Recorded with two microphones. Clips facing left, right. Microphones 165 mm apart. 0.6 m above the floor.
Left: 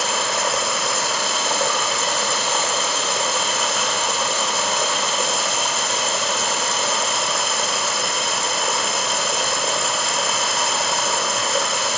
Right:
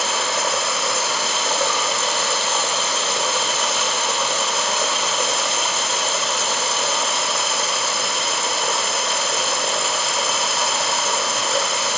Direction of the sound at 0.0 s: Centre (ahead or behind).